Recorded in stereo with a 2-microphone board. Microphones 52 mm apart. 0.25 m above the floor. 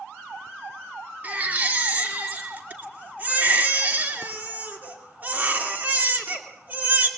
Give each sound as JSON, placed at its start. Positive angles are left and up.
{"t": 1.2, "sound": "a baby crying", "side_deg": -35, "distance_m": 2.5}